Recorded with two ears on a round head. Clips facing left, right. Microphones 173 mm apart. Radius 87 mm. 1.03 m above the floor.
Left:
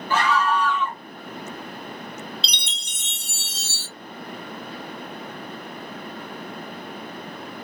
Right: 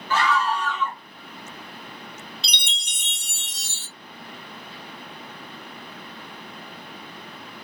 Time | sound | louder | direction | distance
0.1 | a scream | left 1 dB | 15° left (ahead or behind) | 1.2 m
2.4 | a chime | left 2 dB | 15° right (ahead or behind) | 1.0 m